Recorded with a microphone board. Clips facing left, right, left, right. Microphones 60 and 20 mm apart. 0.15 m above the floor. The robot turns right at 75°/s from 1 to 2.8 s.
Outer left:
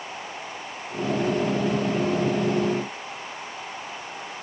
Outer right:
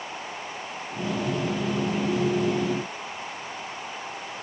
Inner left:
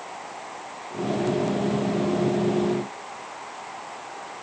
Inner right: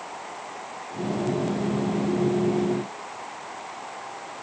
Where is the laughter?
No laughter in this recording.